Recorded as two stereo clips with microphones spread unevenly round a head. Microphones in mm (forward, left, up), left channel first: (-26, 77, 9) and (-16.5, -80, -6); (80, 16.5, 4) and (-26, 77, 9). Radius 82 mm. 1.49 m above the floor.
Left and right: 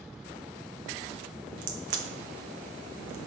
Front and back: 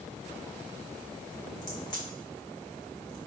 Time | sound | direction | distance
1.6 | a crack | 95° right | 0.9 m